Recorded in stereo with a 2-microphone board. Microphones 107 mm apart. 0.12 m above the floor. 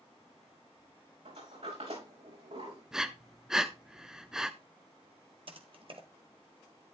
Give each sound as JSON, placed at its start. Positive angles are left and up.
{"t": 1.2, "sound": "a sliding door", "side_deg": -75, "distance_m": 5.5}
{"t": 2.9, "sound": "breathing", "side_deg": -5, "distance_m": 0.8}
{"t": 5.5, "sound": "typing on a keyboard", "side_deg": -55, "distance_m": 1.6}